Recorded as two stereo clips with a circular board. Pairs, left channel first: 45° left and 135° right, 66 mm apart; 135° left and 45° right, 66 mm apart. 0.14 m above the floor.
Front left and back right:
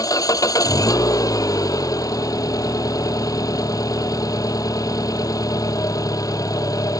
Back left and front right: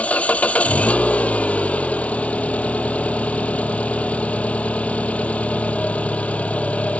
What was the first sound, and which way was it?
An engine running, 65° left.